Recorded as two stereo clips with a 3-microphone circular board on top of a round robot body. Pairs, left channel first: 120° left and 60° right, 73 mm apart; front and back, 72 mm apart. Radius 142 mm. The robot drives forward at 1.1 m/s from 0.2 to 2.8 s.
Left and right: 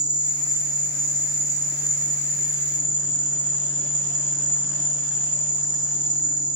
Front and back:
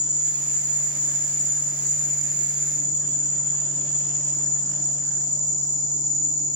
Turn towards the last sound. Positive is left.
turn(degrees=165)